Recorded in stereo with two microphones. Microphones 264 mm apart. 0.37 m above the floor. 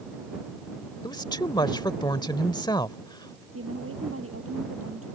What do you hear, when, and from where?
1.0 s a woman speaking: 15° left (ahead or behind)
3.5 s a woman speaking: 55° right (ahead or behind)